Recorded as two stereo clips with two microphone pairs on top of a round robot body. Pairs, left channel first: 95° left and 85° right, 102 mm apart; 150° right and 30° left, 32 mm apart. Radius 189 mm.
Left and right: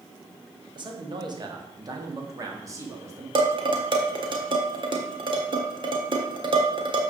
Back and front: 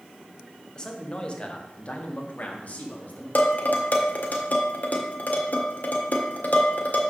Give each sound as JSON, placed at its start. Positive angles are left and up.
{"t": 0.8, "sound": "a man speaking", "azimuth_deg": -95, "distance_m": 1.9}
{"t": 3.4, "sound": "dishes clattering", "azimuth_deg": -120, "distance_m": 1.6}